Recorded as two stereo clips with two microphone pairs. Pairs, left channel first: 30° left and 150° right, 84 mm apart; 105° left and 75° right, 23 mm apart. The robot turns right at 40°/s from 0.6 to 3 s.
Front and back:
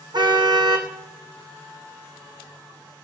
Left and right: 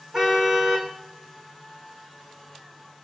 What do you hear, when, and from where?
0.1 s a car horn: 130° right, 3 m; by 0.9 s 115° right, 3 m